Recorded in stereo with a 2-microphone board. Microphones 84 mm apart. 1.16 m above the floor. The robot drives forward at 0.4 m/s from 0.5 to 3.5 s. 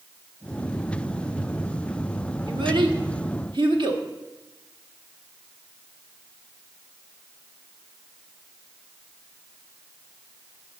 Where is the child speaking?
70° right (ahead or behind), 1.4 m; by 4.0 s 65° right (ahead or behind), 1.4 m.